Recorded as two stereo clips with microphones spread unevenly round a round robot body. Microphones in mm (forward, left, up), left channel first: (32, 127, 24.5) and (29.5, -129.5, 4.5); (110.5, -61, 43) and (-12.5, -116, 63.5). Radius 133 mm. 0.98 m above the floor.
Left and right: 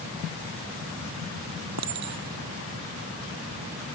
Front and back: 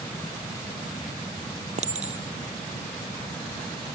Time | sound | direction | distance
1.8 | a clink | 120° right | ?